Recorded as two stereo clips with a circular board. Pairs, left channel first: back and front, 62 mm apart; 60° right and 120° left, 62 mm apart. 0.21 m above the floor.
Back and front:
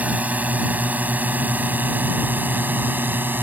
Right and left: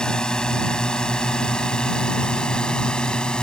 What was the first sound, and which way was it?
A drone, 5° right.